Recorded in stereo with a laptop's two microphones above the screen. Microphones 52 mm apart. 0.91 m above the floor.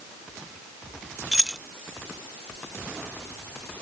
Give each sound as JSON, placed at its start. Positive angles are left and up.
{"t": 1.3, "sound": "keys jangling", "side_deg": -15}